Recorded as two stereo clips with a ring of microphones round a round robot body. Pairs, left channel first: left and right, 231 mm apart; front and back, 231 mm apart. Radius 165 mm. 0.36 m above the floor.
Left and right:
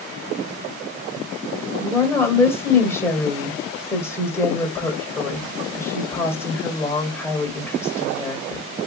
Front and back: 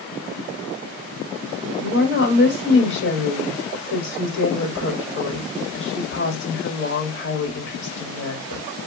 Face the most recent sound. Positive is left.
turn(degrees=10)